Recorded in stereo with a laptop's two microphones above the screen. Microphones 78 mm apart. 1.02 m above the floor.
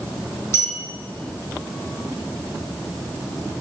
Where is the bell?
30° left (ahead or behind), 2.5 m.